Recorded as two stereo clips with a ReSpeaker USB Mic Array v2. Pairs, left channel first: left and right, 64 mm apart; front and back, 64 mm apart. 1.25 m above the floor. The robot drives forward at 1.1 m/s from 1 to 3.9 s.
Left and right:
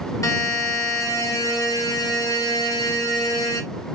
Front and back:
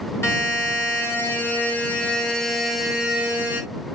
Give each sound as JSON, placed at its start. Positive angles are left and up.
{"t": 0.2, "sound": "a buzzer", "azimuth_deg": 50, "distance_m": 3.0}